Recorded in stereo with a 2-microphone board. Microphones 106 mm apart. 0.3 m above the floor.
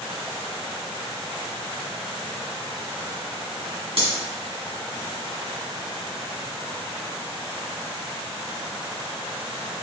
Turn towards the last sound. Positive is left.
turn(degrees=-65)  # may be behind; listen again after turning